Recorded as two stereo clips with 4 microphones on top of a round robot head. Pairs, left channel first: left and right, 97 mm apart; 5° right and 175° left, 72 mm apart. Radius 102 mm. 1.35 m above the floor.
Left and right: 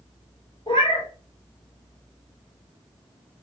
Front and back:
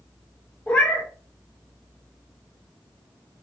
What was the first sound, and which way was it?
A cat meowing, 50° left.